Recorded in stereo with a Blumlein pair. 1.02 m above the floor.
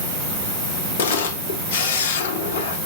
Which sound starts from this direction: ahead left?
A camera shutter, at 1.0 s.